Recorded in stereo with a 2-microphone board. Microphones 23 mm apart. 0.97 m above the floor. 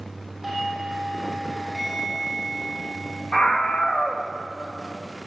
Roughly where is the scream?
Left.